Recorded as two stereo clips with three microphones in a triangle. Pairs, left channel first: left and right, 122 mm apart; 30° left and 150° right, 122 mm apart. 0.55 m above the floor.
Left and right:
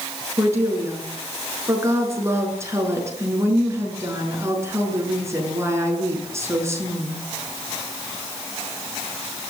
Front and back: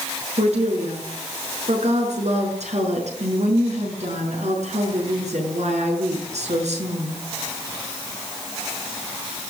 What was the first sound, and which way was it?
A woman speaking, 155° right.